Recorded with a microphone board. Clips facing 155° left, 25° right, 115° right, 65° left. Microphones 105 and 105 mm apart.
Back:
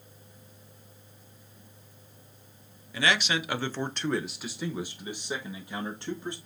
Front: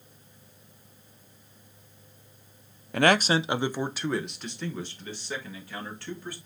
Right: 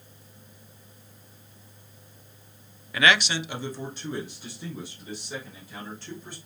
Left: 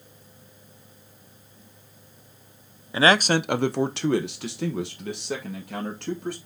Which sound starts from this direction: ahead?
A man speaking, at 2.9 s.